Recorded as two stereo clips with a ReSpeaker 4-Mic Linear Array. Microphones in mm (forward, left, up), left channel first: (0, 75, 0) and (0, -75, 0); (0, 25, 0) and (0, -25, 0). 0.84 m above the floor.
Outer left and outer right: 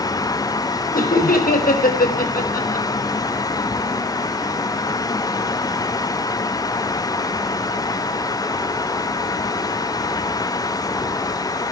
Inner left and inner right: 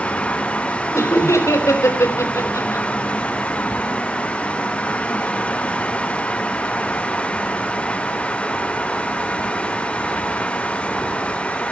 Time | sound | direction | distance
0.9 | laughter | 80° left | 4 m